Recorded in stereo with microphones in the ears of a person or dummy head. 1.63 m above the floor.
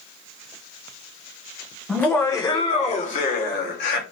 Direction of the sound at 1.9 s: 5° left (ahead or behind).